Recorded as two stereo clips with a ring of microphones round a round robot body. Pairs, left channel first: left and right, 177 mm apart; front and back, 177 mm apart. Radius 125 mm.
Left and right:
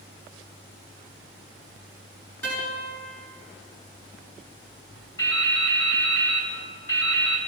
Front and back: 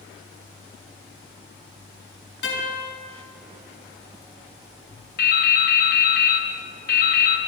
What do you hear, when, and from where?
2.4 s a guitar: 5° left, 5.5 m
5.2 s dripping: 15° left, 2 m